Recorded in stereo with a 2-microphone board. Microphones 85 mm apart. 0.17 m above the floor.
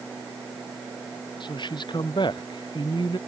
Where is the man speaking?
65° left (ahead or behind).